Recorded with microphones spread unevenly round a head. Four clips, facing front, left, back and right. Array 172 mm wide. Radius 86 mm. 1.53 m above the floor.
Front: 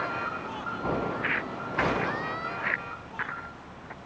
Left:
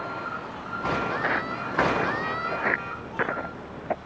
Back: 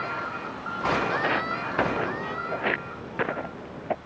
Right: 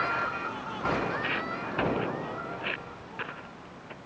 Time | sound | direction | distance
1.1 | footsteps | 155° left | ?